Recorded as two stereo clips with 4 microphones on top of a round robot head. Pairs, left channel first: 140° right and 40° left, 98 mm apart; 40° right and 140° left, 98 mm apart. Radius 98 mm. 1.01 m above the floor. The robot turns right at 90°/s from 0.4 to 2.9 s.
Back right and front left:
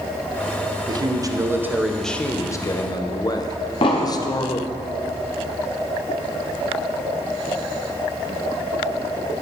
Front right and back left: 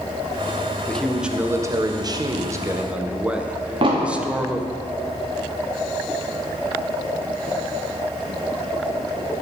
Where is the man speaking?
30° left, 0.8 m; by 4.7 s 145° right, 0.8 m.